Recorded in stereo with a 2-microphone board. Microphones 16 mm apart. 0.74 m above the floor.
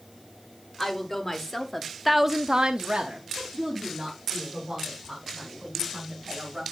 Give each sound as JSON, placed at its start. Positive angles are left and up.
{"t": 0.8, "sound": "a woman speaking", "side_deg": 30, "distance_m": 2.5}